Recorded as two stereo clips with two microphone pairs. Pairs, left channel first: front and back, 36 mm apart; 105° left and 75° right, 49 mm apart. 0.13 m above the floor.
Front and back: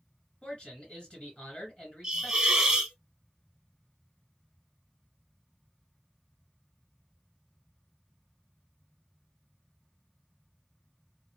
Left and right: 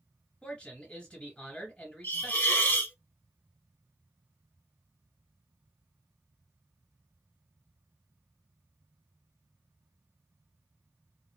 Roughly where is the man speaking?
Ahead left.